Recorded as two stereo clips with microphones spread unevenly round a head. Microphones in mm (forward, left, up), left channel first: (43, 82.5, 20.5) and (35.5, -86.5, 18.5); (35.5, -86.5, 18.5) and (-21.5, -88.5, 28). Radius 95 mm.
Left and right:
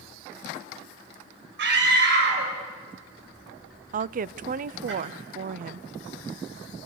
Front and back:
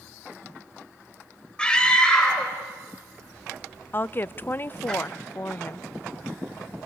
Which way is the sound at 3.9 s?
55° right.